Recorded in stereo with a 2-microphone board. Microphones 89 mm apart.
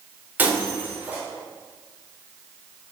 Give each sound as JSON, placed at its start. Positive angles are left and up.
{"t": 0.4, "sound": "breaking glass", "side_deg": -20, "distance_m": 3.5}